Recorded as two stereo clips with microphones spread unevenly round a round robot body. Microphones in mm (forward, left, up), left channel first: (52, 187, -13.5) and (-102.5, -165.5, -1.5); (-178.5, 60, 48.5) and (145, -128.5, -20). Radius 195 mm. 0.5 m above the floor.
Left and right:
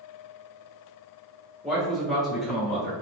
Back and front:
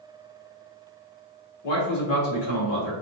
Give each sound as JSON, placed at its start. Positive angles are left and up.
{"t": 1.6, "sound": "a man speaking", "azimuth_deg": 155, "distance_m": 1.3}